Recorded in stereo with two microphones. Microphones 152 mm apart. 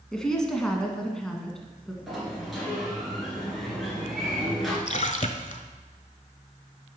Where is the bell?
No bell in this recording.